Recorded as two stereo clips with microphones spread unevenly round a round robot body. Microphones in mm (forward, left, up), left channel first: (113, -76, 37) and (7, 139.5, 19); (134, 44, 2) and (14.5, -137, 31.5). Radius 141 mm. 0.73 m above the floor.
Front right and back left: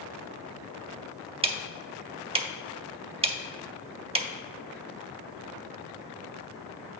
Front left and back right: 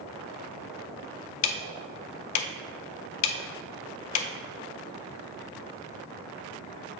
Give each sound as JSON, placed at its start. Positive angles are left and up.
{"t": 1.4, "sound": "ticking", "azimuth_deg": 45, "distance_m": 0.5}